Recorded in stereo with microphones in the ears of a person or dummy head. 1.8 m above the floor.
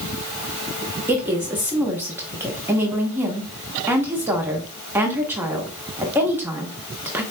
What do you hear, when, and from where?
1.1 s a woman speaking: 5° right (ahead or behind), 0.8 m